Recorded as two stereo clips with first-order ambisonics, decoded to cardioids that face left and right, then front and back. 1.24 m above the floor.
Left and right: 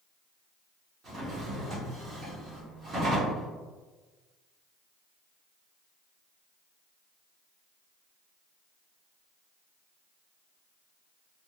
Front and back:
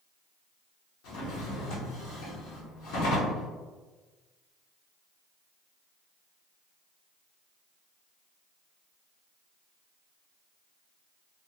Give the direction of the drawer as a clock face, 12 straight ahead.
1 o'clock.